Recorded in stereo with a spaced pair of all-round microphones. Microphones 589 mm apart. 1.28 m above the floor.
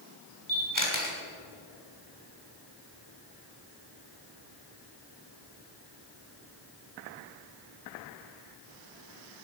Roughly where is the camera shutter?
Left.